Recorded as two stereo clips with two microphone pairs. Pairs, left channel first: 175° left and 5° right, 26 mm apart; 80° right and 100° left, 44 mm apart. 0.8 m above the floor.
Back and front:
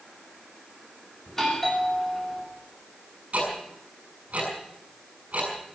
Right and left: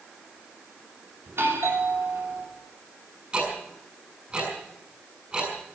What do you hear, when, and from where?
1.3 s a doorbell: 100° left, 3 m
3.3 s ticking: 35° left, 6.5 m